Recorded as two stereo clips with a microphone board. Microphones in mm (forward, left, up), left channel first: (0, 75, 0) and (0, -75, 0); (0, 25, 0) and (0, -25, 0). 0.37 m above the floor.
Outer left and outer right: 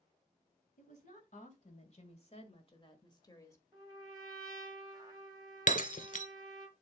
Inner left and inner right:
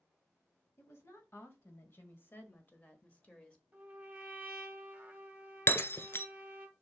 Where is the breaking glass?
60° left (ahead or behind), 0.5 m.